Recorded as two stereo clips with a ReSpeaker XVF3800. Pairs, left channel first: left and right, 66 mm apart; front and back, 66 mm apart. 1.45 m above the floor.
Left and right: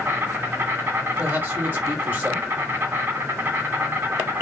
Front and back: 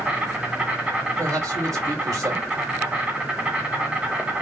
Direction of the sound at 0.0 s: 120° right.